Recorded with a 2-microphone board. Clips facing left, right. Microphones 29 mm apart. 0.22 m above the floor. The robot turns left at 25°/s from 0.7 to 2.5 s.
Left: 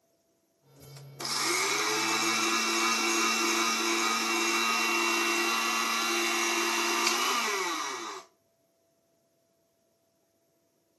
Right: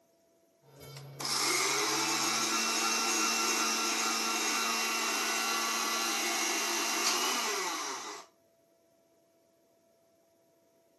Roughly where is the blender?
Behind.